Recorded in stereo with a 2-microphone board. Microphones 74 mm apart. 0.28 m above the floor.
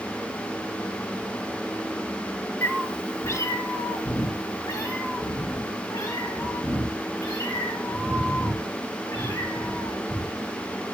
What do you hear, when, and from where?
2.6 s a cat meowing: 30° left (ahead or behind), 1.3 m; by 10.5 s 50° left (ahead or behind), 10 m